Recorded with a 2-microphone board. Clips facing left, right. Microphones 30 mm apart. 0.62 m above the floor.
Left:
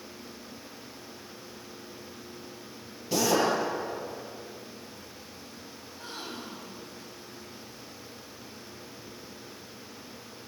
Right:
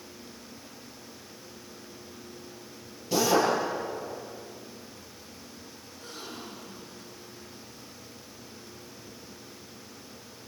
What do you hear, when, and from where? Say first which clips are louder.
3.1 s a drill: right 1 dB; centre (ahead or behind), 7 m
5.8 s a gasp: left 3 dB; 40° left (ahead or behind), 5 m